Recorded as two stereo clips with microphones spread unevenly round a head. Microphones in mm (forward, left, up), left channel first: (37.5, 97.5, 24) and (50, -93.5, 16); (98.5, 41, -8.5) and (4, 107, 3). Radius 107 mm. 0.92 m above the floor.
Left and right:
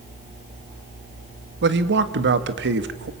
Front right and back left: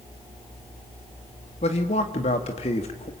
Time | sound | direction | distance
1.6 | a man speaking | 75° right | 1.7 m